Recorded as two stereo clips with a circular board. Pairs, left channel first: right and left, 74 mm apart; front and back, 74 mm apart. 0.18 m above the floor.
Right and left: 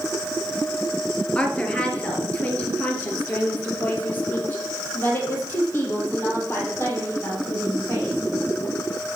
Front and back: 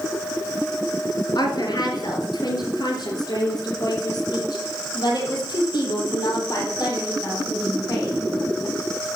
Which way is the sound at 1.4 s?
15° right.